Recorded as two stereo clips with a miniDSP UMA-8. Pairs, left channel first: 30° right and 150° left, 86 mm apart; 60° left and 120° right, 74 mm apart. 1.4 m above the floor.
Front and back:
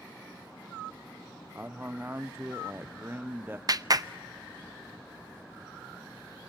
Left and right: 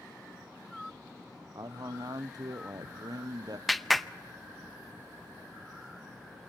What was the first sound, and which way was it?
A man speaking, 145° right.